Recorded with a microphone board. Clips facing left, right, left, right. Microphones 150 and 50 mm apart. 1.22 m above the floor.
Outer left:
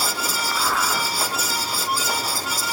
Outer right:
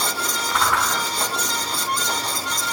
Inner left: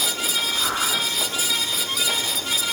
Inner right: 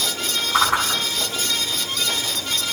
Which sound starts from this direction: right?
A whoosh, at 0.5 s.